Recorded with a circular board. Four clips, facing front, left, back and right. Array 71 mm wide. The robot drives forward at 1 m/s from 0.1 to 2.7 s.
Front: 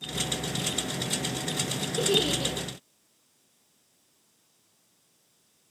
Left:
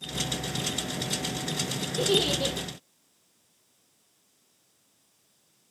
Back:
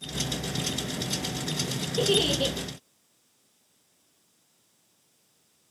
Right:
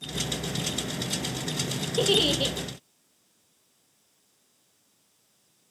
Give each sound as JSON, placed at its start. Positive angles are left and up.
{"t": 2.0, "sound": "a giggle", "azimuth_deg": -105, "distance_m": 2.0}